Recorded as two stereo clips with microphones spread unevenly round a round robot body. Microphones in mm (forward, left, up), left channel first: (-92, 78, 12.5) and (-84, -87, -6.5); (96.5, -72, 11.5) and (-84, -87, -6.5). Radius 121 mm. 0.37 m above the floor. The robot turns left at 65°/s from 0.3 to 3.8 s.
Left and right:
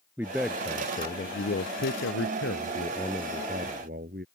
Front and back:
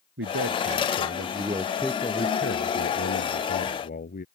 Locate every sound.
0.2 s a man speaking: 165° right; by 4.2 s 35° right